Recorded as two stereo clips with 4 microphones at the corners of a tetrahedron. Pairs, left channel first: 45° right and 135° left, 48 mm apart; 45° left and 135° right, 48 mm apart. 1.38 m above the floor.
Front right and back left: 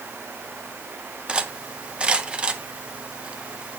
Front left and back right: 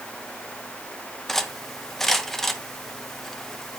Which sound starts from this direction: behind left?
Cutlery clinking, at 1.3 s.